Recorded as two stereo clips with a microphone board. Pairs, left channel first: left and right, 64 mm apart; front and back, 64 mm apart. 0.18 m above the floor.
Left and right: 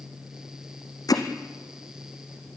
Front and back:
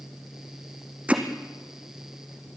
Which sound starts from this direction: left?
Hammering, at 1.1 s.